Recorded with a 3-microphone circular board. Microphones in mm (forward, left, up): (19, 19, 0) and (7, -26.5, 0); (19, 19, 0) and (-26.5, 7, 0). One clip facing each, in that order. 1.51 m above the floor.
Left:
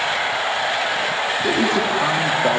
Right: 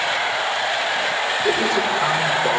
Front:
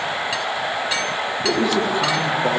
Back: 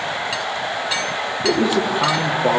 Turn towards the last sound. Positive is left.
turn(degrees=120)